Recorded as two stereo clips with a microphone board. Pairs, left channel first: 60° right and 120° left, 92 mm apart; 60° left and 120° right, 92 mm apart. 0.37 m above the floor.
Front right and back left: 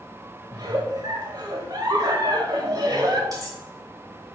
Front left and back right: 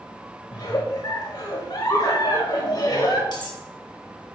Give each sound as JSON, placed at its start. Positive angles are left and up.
{"t": 0.5, "sound": "a giggle", "azimuth_deg": 95, "distance_m": 0.7}
{"t": 3.3, "sound": "cutlery clinking", "azimuth_deg": 80, "distance_m": 1.0}